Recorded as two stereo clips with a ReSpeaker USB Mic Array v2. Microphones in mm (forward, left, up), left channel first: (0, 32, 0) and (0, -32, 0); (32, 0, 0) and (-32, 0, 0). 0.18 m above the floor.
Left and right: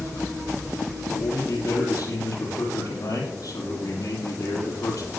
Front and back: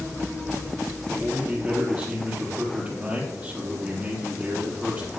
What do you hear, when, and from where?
1.1 s a man speaking: 115° left, 4.5 m